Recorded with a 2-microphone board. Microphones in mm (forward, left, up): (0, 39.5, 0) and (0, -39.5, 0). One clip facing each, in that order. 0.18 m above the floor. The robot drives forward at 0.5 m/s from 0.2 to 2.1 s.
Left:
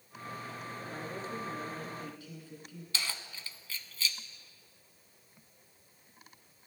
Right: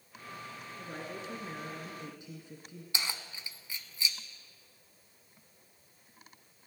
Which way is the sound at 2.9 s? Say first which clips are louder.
Right 1 dB; 20° right (ahead or behind).